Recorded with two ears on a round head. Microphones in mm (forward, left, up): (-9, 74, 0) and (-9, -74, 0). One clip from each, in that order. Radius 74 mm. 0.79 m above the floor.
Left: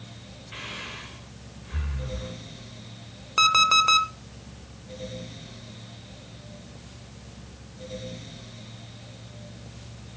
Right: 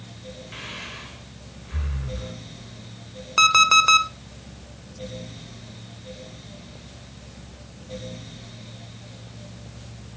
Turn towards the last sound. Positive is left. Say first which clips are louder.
# right 3 dB
turn(degrees=-10)  # may be behind; listen again after turning